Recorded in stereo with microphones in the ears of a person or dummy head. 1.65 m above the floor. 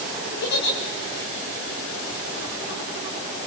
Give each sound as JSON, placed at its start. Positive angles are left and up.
{"t": 0.4, "sound": "a giggle", "side_deg": 50, "distance_m": 4.5}